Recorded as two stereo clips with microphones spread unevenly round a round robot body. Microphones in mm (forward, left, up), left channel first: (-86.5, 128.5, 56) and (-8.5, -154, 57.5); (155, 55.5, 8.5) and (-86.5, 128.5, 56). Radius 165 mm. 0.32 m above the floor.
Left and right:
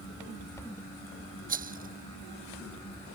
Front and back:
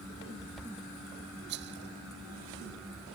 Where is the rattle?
135° right.